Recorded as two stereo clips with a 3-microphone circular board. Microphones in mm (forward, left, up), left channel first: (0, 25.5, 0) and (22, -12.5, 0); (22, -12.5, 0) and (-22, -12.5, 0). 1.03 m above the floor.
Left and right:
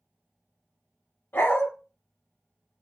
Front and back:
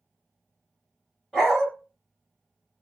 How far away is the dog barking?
About 1.7 m.